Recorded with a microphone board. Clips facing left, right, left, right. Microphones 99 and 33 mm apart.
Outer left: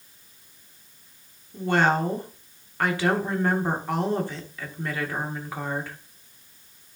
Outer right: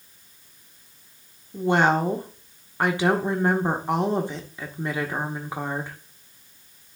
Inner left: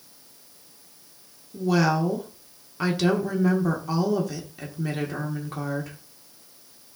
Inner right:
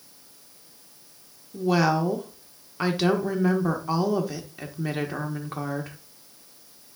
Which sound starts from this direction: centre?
A woman speaking, at 1.5 s.